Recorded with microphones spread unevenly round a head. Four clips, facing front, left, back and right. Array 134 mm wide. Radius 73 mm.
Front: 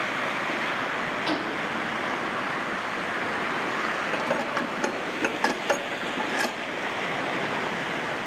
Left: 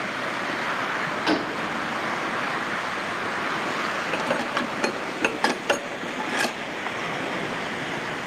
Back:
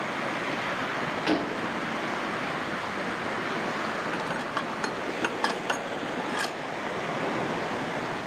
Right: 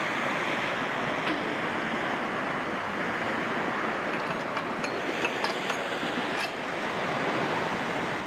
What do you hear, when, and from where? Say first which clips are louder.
1.3 s a gunshot: left 5 dB, back 3 dB; 140° left, 1.5 m
4.1 s dishes clattering: left 5 dB, front 4 dB; 70° left, 1.5 m